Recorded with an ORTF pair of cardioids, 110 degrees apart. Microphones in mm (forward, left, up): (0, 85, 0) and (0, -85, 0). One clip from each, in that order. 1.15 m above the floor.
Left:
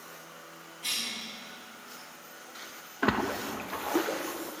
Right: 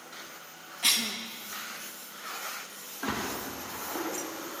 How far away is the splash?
About 0.9 m.